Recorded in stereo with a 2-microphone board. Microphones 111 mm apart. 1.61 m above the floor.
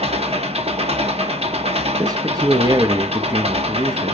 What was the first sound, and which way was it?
An engine running, 65° right (ahead or behind).